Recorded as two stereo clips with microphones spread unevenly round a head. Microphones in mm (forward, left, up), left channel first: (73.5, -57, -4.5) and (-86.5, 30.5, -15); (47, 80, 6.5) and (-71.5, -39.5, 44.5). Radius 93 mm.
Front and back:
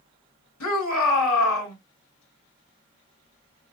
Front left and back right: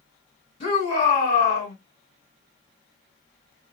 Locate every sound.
0.6 s a shout: 15° right, 3.5 m